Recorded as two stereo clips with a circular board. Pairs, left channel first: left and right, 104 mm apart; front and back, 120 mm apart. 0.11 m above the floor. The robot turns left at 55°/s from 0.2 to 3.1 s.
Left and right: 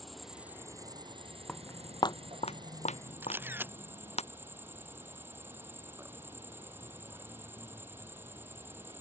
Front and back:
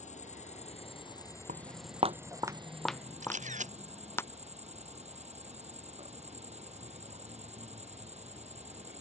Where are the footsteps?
175° left; by 4.2 s 70° left.